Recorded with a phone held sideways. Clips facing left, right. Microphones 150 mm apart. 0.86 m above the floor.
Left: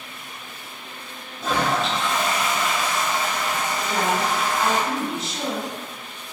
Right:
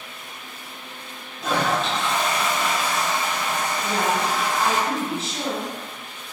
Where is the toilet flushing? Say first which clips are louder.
Even; centre (ahead or behind), 1.2 m.